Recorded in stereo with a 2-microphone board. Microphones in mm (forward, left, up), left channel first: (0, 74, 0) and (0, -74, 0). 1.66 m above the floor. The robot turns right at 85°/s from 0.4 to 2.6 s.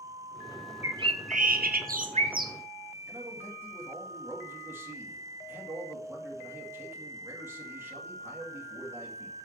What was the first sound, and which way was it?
A bird, 165° right.